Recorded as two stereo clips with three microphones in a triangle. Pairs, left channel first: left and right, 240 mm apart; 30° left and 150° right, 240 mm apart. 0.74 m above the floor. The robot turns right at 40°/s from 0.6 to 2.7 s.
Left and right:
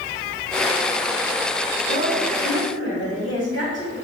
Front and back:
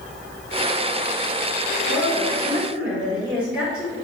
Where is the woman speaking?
90° left, 1.6 m; by 3.9 s 125° left, 1.6 m.